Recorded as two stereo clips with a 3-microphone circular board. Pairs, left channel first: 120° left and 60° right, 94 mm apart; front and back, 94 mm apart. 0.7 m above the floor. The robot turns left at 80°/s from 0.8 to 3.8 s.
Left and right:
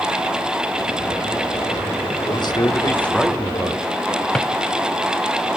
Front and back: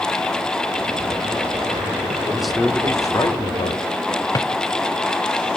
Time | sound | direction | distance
2.3 | a man speaking | 105° left | 1.3 m
4.3 | a drawer | 40° left | 0.8 m